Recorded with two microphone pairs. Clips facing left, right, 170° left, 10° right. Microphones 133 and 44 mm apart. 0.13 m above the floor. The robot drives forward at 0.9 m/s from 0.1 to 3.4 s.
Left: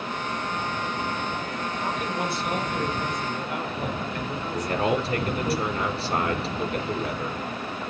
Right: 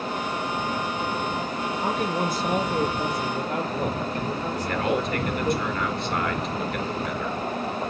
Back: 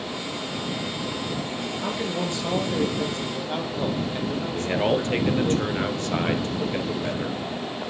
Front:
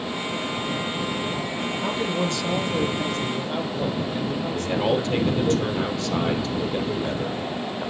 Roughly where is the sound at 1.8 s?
Right.